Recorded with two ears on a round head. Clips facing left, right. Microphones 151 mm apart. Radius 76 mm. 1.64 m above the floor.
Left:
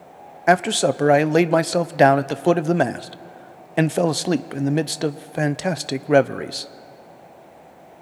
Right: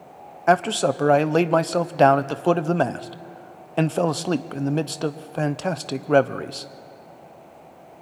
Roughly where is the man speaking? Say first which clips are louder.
Left 1 dB; centre.